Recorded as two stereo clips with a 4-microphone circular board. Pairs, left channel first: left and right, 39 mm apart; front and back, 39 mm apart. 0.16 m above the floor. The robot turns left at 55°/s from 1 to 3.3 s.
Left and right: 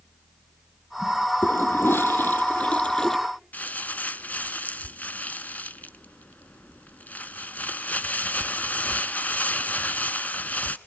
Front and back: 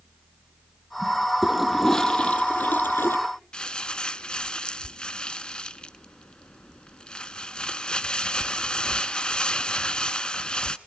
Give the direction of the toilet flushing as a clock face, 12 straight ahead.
8 o'clock.